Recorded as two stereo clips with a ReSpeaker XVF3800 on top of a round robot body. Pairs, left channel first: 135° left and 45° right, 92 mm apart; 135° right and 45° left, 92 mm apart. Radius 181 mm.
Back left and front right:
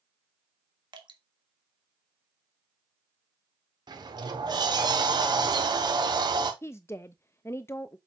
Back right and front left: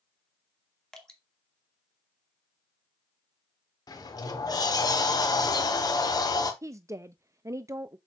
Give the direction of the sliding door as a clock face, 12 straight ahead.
3 o'clock.